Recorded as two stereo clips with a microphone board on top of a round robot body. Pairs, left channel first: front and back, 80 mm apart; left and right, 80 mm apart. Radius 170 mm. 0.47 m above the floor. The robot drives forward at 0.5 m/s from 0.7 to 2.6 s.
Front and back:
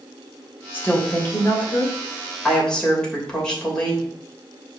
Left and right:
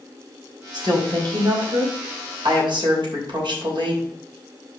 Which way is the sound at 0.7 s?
65° right.